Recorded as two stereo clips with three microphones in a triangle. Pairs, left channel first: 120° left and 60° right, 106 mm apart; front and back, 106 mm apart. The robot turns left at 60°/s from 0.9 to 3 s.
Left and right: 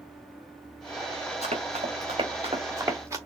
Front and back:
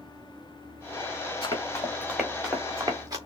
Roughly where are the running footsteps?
Ahead right.